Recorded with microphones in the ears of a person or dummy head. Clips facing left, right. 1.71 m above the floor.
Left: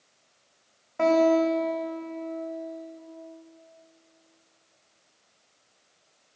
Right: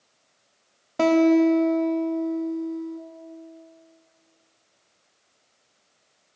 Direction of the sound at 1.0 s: 40° right (ahead or behind).